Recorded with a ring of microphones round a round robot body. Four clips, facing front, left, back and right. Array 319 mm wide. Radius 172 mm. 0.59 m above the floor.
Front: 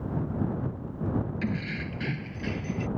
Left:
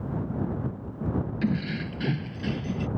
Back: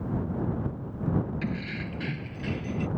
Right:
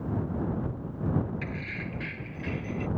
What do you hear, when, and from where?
1.4 s keys jangling: 85° left